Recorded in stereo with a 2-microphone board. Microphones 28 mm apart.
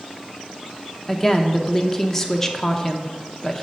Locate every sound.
1.1 s a woman speaking: 20° left (ahead or behind), 0.6 m